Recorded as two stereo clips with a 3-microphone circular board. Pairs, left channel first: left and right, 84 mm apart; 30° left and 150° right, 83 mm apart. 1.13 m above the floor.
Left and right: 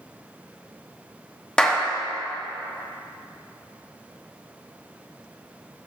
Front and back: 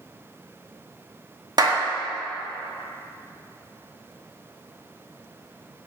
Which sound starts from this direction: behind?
A clap, at 1.6 s.